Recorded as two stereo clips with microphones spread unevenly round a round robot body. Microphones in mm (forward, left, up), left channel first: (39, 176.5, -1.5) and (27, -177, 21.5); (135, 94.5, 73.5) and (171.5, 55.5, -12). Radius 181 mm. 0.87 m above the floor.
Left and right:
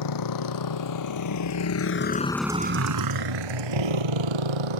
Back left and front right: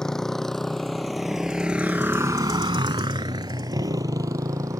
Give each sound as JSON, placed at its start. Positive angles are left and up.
{"t": 0.0, "sound": "a motorcycle", "azimuth_deg": 60}